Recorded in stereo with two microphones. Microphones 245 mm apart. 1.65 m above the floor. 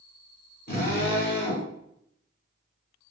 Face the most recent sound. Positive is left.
turn(degrees=40)  # may be behind; listen again after turning